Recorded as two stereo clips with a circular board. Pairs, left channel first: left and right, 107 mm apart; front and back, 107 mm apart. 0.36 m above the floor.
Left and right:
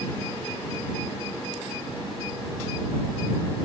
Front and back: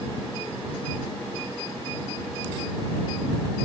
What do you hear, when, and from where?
Only background noise.